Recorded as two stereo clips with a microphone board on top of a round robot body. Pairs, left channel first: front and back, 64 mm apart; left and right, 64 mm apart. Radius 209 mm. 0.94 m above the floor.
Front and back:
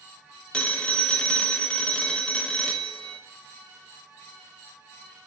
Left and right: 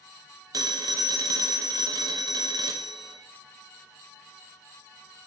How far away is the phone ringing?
About 0.8 m.